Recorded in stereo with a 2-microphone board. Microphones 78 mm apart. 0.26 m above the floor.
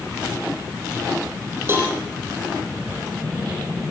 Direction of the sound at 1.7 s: 30° right (ahead or behind).